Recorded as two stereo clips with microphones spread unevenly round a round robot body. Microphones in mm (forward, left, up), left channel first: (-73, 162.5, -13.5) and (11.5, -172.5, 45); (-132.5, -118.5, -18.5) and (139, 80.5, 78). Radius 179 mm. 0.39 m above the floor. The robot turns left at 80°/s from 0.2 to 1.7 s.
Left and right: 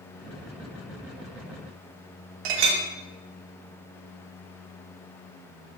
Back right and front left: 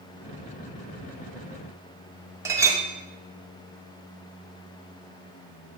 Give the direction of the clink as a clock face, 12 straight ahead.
2 o'clock.